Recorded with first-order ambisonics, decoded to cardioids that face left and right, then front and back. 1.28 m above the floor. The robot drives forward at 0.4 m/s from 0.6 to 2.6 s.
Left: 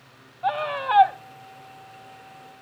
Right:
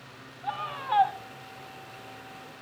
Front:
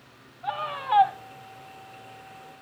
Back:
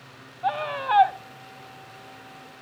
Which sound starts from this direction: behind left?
A scream, at 0.4 s.